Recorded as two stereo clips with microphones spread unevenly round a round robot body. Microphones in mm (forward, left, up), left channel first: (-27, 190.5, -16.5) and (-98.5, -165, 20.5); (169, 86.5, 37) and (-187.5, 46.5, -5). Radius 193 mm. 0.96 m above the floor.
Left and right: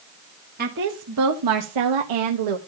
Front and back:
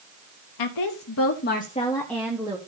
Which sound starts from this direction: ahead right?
A woman speaking, at 0.6 s.